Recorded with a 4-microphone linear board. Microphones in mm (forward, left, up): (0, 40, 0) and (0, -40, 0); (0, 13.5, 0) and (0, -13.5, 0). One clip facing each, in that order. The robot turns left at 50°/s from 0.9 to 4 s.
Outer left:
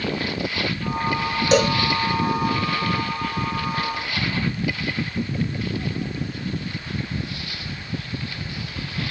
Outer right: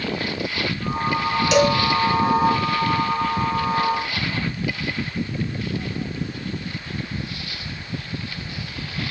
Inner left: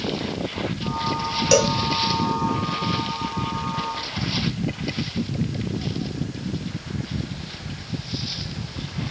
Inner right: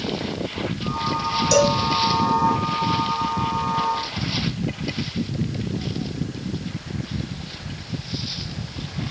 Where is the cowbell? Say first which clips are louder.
Outer right 1 dB, even; 40° left (ahead or behind), 0.7 m; by 1.8 s 30° left (ahead or behind), 0.7 m.